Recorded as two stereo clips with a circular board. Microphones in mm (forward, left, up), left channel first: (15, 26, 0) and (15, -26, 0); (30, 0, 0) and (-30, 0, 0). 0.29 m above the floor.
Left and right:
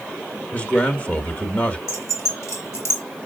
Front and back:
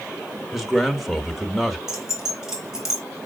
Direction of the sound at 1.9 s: 100° left.